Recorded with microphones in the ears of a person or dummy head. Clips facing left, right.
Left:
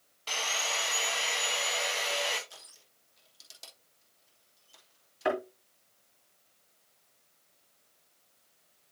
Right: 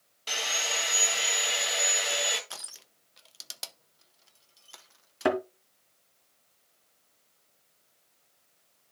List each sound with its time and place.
0.3 s sawing: 15° right (ahead or behind), 2 m
2.5 s crushing: 85° right, 0.7 m
5.2 s a thud: 55° right (ahead or behind), 1.7 m